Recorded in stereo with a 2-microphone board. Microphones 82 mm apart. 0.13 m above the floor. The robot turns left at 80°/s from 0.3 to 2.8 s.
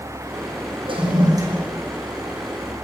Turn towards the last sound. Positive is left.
turn(degrees=115)